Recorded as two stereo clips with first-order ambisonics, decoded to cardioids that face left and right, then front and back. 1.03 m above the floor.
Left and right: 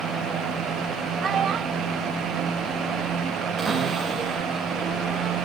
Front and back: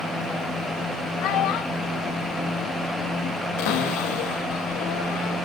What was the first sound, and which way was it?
A child speaking, 25° right.